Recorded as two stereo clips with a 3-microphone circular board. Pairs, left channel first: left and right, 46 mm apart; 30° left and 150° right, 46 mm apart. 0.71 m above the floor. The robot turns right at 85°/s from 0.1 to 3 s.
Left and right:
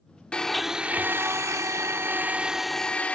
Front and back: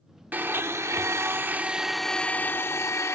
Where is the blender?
160° left; by 3.1 s 25° left.